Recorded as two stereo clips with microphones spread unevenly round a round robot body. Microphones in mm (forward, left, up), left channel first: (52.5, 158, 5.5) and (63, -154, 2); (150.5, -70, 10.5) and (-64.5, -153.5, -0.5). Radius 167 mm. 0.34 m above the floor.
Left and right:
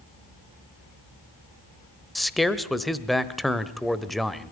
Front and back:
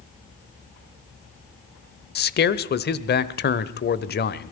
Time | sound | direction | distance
2.1 | a man speaking | straight ahead | 1.1 m